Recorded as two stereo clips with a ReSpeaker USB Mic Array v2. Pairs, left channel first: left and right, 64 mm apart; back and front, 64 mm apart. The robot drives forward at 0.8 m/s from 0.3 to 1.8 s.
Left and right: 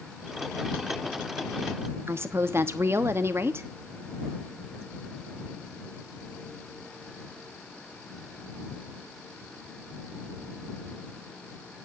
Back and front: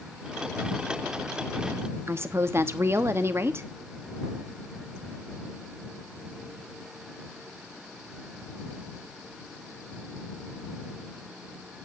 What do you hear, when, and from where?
2.1 s a woman speaking: 45° right, 1.2 m